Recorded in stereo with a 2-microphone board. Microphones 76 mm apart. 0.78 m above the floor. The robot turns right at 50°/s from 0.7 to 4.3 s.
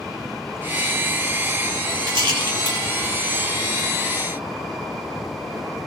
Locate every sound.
2.1 s a rattle: 85° right, 1.6 m; by 2.8 s 55° right (ahead or behind), 1.6 m